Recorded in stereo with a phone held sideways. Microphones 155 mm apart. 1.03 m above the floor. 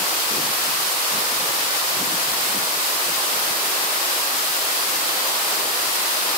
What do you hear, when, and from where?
Only background noise.